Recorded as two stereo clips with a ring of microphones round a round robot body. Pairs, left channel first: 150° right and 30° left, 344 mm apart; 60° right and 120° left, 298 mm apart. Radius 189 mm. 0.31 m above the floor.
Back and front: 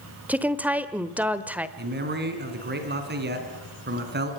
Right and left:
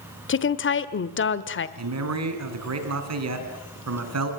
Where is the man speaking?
90° left, 4.5 m.